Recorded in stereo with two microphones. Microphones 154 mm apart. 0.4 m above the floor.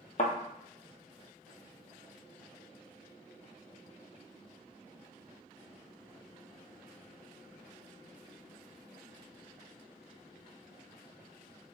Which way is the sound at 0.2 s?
55° left (ahead or behind).